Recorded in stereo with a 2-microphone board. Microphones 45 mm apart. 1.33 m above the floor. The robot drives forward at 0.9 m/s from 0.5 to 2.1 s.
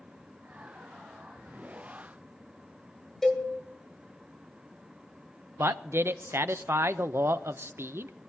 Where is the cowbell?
10° left (ahead or behind), 1.8 m.